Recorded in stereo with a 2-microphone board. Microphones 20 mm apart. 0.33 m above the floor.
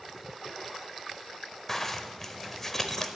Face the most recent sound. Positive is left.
turn(degrees=15)  # may be behind; listen again after turning